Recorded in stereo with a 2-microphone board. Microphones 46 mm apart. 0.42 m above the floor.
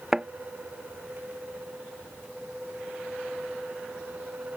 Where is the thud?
10° right (ahead or behind).